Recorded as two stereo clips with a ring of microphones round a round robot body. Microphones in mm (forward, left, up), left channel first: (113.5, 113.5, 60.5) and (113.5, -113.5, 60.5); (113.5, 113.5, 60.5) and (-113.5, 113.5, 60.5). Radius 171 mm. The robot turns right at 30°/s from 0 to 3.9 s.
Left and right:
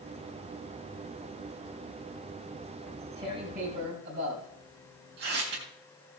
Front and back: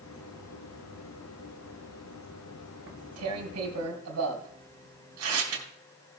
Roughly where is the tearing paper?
Behind.